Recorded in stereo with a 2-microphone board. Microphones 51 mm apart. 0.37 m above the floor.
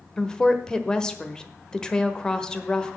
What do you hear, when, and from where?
0.2 s a woman speaking: 15° left (ahead or behind), 1.1 m